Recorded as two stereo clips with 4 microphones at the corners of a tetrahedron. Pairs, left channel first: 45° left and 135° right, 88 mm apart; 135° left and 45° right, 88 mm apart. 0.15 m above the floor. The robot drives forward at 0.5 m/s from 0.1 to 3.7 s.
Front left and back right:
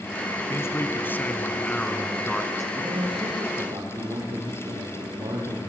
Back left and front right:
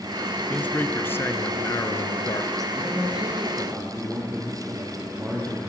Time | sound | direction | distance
0.5 | a man speaking | 75° left | 1.5 m
2.8 | a man speaking | 115° right | 6 m